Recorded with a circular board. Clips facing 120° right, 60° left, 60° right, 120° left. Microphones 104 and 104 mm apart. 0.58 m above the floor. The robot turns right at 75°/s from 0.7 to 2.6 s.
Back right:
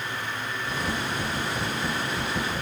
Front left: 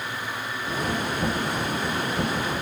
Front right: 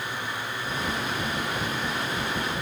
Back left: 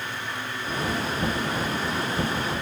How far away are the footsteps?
No footsteps in this recording.